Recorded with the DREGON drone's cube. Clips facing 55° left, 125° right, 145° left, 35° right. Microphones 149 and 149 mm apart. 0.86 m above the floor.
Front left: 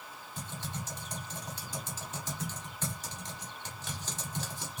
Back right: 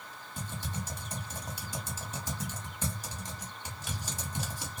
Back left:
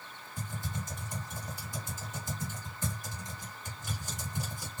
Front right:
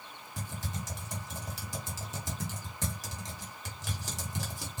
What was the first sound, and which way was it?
Typing on a keyboard, 45° right.